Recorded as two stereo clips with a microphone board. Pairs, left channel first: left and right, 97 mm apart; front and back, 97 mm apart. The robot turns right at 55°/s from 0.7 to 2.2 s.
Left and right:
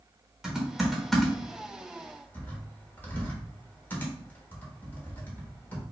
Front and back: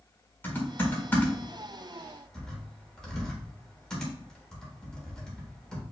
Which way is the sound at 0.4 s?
10° right.